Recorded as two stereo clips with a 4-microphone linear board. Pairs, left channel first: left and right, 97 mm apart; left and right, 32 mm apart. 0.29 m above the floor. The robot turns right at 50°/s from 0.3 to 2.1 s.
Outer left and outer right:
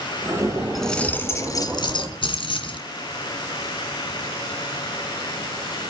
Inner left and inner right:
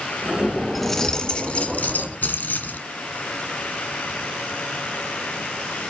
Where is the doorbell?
No doorbell in this recording.